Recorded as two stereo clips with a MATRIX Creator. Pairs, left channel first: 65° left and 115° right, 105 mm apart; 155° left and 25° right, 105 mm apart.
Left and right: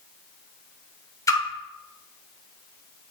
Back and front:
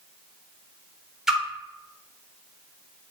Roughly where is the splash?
Ahead left.